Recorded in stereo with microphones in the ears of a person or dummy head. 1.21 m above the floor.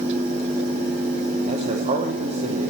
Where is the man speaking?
35° right (ahead or behind), 1.0 m.